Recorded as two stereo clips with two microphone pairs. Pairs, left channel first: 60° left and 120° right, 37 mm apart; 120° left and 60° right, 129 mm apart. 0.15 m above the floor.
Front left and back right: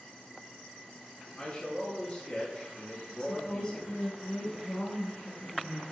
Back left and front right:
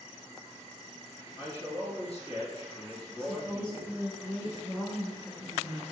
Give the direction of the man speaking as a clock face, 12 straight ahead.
8 o'clock.